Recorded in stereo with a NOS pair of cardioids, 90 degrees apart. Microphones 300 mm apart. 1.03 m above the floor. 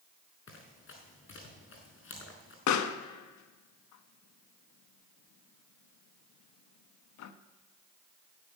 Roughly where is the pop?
Ahead left.